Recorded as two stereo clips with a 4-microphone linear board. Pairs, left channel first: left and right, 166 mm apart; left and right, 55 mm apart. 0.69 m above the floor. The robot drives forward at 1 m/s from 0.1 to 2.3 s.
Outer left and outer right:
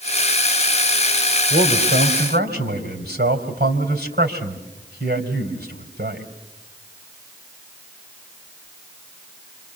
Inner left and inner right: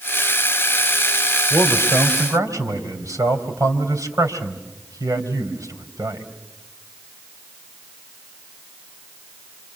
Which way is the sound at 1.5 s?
75° right (ahead or behind).